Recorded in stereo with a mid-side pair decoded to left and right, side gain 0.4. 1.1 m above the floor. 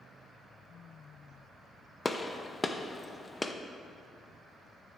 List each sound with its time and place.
2.0 s a gunshot: 20° left, 0.6 m